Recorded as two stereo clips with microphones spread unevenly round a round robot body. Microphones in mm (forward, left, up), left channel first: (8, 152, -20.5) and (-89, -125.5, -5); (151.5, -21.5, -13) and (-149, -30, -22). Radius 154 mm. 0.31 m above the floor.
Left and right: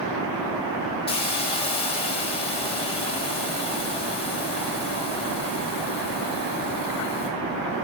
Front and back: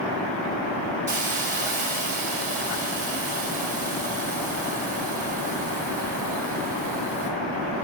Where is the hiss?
130° left, 1.6 m.